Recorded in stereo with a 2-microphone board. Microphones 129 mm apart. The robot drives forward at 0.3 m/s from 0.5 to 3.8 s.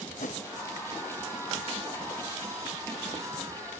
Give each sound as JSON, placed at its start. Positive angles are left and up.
{"t": 0.2, "sound": "a whoosh", "side_deg": 75, "distance_m": 2.0}